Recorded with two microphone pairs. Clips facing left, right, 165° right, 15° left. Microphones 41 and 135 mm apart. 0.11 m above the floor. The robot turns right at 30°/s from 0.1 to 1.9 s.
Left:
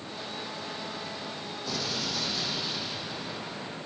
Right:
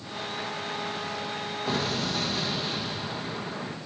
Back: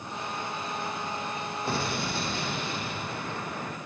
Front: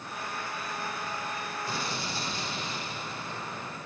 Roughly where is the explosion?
Behind right.